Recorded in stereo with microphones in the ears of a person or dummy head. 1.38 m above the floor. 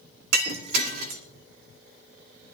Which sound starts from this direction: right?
Breaking glass, at 0.3 s.